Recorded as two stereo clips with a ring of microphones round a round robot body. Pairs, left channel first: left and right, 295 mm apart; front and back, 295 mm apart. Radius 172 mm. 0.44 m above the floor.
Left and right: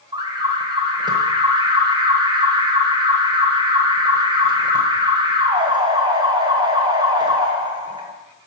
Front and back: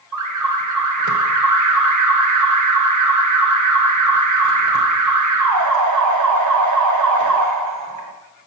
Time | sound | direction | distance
0.1 | an alarm | 165° right | 1.4 m